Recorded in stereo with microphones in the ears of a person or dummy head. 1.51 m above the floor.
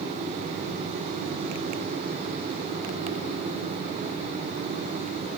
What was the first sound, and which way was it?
Only background noise.